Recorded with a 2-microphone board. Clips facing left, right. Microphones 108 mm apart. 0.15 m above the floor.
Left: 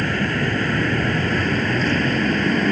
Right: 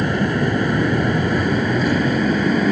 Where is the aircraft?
15° right (ahead or behind); by 2.7 s 10° right (ahead or behind).